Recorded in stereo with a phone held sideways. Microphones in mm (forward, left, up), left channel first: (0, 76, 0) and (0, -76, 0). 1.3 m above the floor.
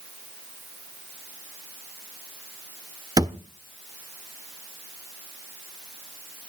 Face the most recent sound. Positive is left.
turn(degrees=-25)  # may be behind; listen again after turning